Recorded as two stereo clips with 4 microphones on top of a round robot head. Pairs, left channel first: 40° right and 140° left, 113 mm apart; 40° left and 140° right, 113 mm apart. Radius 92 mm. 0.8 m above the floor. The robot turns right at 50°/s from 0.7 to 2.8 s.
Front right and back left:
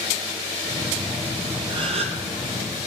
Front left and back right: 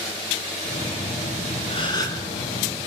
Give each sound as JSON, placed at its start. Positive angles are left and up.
{"t": 1.7, "sound": "a gasp", "azimuth_deg": 85, "distance_m": 1.2}